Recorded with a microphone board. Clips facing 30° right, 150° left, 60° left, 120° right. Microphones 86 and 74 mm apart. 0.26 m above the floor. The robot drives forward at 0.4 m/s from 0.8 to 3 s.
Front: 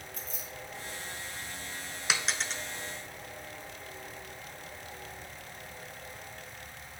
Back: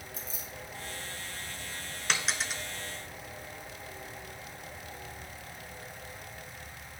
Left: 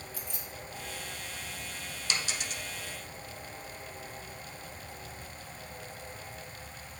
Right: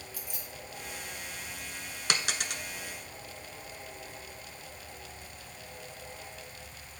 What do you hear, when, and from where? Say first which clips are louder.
0.1 s keys jangling: even, left 2 dB; 40° right, 2.5 m
2.1 s a dropped coin: even, right 3 dB; 115° right, 0.5 m; by 2.6 s 130° right, 0.6 m